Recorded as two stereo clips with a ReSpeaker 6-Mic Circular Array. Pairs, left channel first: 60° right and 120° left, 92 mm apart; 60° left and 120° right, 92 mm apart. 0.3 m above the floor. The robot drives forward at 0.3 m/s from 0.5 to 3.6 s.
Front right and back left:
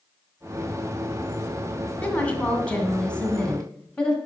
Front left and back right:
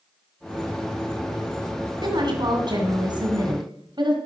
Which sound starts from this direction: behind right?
A woman speaking, at 2.0 s.